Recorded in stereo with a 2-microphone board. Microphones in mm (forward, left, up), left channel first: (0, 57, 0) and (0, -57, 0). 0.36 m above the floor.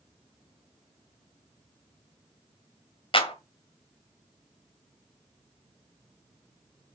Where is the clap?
50° left (ahead or behind), 1.6 m.